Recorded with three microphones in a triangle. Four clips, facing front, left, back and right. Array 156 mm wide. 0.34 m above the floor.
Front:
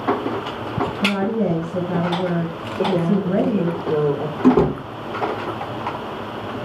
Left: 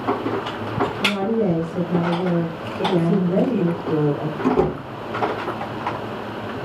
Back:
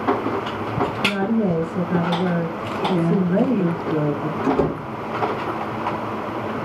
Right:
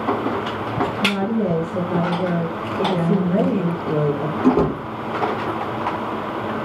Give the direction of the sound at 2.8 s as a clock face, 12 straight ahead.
1 o'clock.